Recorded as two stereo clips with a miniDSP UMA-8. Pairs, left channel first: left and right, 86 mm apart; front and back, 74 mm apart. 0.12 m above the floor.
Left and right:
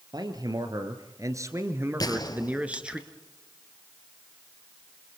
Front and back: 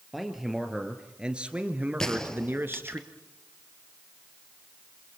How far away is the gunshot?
About 2.0 m.